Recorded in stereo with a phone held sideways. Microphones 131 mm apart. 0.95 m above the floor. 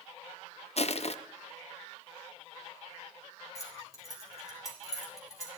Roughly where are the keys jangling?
Left.